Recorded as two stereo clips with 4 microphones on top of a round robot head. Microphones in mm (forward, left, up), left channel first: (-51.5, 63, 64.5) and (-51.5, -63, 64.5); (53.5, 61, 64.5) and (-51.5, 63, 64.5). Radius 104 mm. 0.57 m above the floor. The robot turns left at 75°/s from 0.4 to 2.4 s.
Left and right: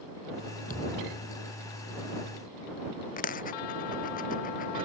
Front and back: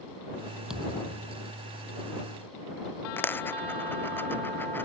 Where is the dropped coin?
70° left.